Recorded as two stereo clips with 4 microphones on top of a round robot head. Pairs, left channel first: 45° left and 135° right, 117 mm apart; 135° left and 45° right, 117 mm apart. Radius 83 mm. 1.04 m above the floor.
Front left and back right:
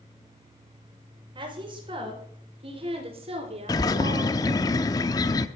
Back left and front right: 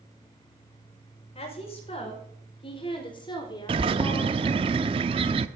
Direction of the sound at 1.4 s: 175° left.